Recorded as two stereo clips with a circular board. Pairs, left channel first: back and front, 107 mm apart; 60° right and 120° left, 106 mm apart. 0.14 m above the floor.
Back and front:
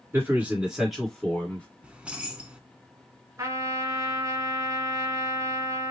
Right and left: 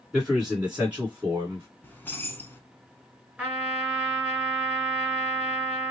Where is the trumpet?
45° left, 2 m.